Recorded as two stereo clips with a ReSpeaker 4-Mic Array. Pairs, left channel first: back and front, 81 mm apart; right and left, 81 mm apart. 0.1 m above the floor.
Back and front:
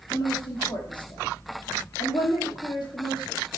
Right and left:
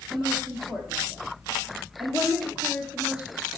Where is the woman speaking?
170° left, 3 m.